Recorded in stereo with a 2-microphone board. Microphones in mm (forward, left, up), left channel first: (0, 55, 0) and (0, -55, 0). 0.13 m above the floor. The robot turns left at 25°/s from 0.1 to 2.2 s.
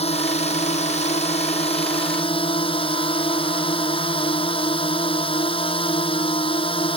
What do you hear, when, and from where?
0.0 s a drone: 110° left; by 7.0 s 55° left